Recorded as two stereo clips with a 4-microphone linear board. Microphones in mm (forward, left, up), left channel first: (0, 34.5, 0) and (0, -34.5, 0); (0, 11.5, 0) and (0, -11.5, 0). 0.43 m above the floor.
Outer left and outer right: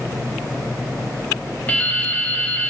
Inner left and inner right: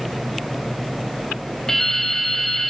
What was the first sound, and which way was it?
Dripping, 20° left (ahead or behind).